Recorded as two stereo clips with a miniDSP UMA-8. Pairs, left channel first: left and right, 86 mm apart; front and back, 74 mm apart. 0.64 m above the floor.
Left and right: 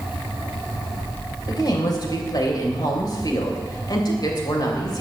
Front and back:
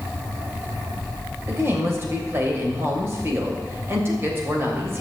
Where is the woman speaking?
125° left, 3 m.